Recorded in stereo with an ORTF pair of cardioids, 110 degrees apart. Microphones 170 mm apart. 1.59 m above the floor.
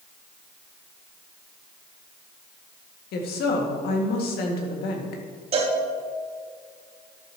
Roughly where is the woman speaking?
Left.